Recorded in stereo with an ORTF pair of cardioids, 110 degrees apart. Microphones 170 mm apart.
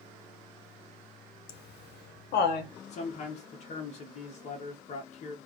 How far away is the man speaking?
About 1.0 m.